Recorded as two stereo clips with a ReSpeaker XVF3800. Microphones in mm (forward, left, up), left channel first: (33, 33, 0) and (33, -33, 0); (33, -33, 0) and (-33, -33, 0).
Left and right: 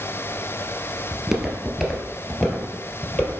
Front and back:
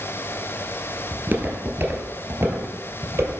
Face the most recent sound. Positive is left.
turn(degrees=140)